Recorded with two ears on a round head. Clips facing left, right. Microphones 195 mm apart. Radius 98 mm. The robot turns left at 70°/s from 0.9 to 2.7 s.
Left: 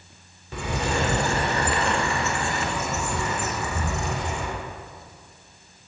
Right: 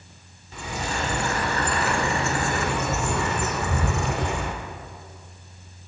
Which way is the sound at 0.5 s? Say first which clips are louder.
Left 4 dB; 60° left.